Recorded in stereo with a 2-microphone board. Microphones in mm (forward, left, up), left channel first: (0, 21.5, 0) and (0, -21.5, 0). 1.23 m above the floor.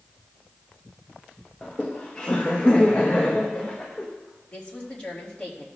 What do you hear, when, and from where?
1.6 s laughter: 25° left (ahead or behind), 0.9 m
4.5 s a woman speaking: 25° left (ahead or behind), 2.5 m